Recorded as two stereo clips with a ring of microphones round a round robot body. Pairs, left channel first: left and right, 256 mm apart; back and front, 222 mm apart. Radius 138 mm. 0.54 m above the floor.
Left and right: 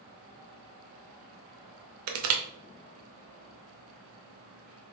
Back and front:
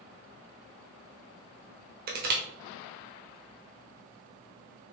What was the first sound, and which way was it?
Crushing, 55° right.